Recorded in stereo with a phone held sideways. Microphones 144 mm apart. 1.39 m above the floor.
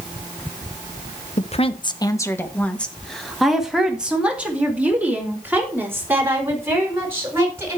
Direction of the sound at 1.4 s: 55° left (ahead or behind).